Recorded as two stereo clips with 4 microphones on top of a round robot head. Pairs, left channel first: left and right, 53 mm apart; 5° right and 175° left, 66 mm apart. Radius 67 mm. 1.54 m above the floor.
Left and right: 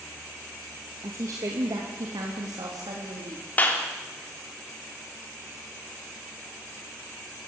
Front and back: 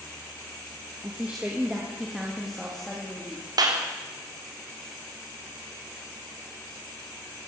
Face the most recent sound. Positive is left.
turn(degrees=150)